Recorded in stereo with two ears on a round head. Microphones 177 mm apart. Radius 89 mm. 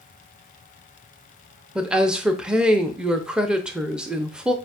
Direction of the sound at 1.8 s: 5° right (ahead or behind).